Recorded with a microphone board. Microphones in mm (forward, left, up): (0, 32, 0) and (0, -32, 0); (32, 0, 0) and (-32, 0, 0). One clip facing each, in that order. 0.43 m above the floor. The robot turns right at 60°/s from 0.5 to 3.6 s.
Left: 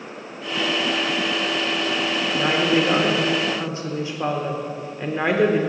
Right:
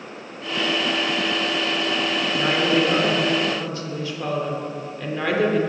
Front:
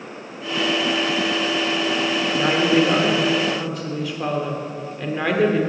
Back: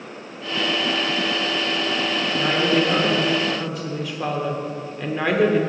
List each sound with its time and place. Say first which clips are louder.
2.3 s a woman speaking: left 1 dB, front 2 dB; 15° left, 1.0 m; by 5.6 s 90° left, 1.0 m